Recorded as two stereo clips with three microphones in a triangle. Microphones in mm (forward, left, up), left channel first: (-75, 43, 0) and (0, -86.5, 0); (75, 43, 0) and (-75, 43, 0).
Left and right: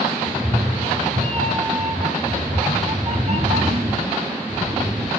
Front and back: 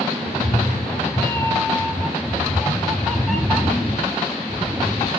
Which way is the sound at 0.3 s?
40° right.